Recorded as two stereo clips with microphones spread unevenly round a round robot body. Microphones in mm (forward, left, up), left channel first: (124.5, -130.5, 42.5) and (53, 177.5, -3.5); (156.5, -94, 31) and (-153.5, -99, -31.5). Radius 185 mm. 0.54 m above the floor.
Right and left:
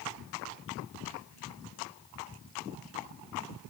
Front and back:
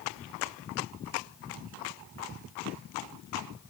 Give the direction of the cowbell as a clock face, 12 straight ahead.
I don't hear a cowbell.